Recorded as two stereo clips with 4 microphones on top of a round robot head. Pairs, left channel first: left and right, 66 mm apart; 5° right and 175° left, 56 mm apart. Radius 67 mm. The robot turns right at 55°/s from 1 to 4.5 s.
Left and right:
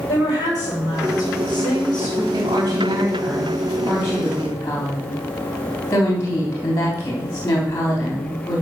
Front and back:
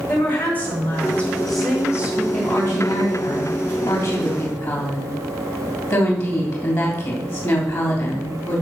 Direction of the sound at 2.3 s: 95° right.